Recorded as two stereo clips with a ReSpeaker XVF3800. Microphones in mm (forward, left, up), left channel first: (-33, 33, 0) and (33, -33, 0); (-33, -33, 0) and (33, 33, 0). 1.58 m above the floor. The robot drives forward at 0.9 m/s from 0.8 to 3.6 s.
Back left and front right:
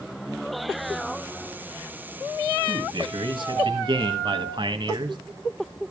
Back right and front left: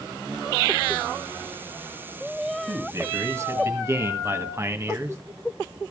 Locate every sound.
2.7 s a man speaking: 10° right, 2.5 m; by 5.2 s 15° right, 1.7 m